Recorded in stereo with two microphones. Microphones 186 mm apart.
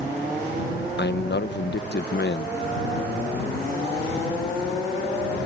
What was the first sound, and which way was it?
A man speaking, 70° left (ahead or behind).